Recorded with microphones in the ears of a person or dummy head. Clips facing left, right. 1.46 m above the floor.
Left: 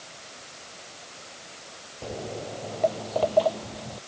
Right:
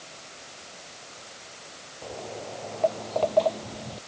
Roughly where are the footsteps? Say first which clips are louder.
Left 3 dB; left.